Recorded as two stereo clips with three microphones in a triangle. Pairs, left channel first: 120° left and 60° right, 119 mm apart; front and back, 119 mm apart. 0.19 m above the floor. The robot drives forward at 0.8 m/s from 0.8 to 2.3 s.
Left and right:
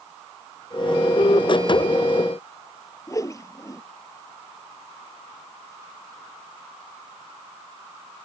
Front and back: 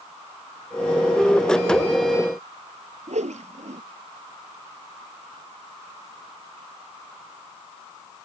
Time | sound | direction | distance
3.1 | a whoosh | straight behind | ?